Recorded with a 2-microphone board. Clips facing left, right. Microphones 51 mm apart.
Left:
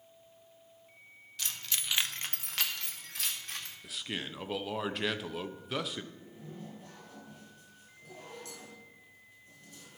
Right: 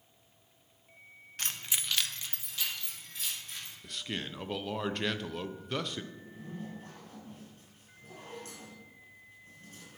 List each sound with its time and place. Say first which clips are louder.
1.4 s keys jangling: right 1 dB; 45° right (ahead or behind), 0.8 m; by 3.7 s 80° left, 2.5 m
3.8 s a man speaking: right 1 dB; 5° left (ahead or behind), 0.5 m
6.1 s a zipper: right 3 dB; 40° right (ahead or behind), 4.5 m